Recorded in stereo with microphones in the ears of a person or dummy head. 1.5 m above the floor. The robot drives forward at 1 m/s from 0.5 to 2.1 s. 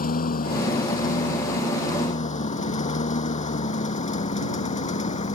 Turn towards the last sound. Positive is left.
turn(degrees=35)  # may be behind; listen again after turning